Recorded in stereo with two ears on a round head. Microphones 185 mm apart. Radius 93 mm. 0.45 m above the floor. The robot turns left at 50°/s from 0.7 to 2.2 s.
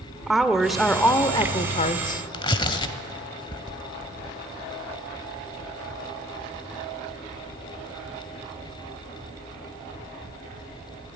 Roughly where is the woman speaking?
Behind.